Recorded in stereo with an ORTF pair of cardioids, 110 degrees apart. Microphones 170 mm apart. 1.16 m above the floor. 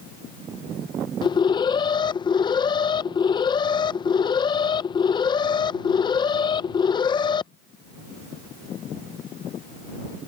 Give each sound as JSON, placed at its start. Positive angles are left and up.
{"t": 1.2, "sound": "an alarm", "azimuth_deg": 25}